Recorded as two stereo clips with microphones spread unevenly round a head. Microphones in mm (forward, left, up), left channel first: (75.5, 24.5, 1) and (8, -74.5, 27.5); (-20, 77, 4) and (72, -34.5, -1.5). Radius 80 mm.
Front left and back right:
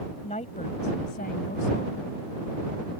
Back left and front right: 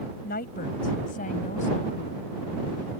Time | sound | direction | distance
0.2 | a woman speaking | 115° left | ?